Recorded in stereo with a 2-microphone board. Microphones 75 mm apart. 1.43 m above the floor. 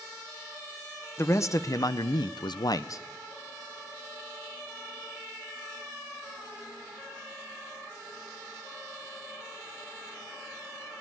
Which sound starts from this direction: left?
A man speaking, at 1.2 s.